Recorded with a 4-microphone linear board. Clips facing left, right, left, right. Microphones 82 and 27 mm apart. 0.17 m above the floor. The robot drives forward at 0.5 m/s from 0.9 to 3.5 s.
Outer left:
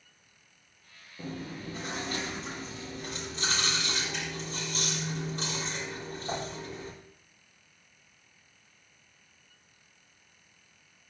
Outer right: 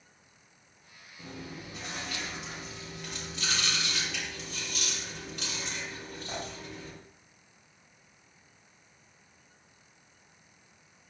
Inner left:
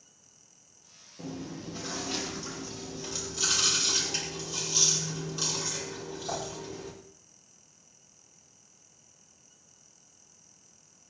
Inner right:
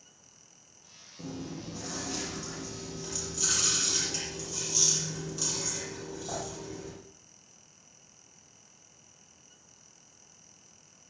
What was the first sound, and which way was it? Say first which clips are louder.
Chewing: outer left 4 dB, inner left 1 dB; 35° left (ahead or behind).